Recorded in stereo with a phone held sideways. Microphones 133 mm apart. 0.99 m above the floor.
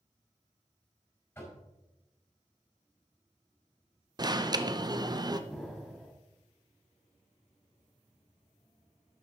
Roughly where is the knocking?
Centre.